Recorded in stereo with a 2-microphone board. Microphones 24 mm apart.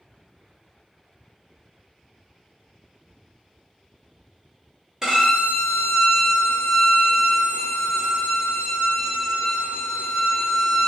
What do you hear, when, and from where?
5.0 s a violin: 20° right (ahead or behind), 1.2 m